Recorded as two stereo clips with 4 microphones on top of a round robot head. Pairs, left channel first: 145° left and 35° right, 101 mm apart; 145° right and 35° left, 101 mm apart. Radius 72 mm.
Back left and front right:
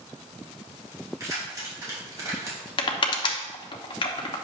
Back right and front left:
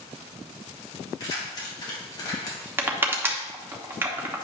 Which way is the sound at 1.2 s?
95° right.